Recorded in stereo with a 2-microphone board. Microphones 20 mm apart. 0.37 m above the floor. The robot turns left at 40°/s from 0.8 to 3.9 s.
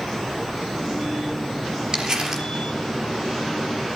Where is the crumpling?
40° right (ahead or behind), 4 m; by 2.5 s 20° right (ahead or behind), 4 m.